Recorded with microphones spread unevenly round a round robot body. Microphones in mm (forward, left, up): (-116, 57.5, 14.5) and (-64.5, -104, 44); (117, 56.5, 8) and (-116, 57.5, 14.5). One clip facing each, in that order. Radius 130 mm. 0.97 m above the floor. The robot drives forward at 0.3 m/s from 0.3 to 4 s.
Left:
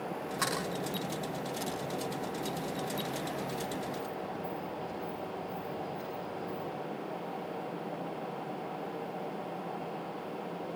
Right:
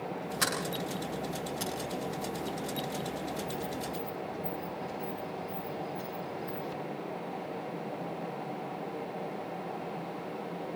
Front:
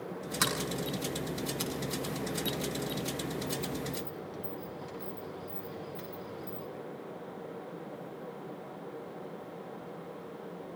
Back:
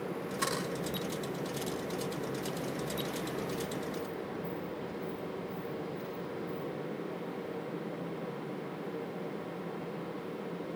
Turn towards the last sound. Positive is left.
turn(degrees=0)